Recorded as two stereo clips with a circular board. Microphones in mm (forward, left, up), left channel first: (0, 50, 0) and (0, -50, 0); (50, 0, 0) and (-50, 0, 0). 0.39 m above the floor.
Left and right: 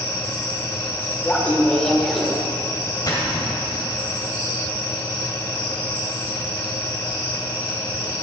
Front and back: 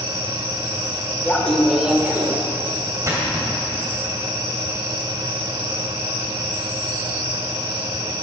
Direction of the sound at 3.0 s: 130° left.